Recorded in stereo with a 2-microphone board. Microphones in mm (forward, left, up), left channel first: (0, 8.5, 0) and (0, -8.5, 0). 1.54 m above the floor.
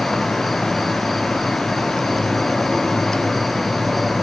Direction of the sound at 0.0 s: 10° left (ahead or behind).